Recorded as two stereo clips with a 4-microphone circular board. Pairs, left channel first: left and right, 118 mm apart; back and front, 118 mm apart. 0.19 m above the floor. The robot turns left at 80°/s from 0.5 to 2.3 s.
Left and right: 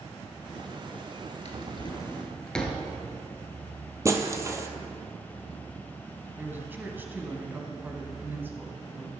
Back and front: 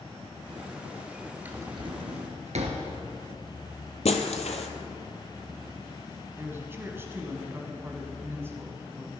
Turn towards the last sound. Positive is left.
turn(degrees=-40)